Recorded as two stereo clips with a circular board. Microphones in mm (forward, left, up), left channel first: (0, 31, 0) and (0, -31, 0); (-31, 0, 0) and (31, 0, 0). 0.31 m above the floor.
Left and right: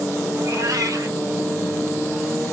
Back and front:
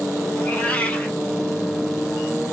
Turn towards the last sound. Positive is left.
turn(degrees=-115)